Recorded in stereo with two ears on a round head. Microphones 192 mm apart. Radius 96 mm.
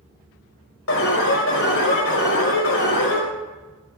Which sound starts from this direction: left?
An alarm, at 0.9 s.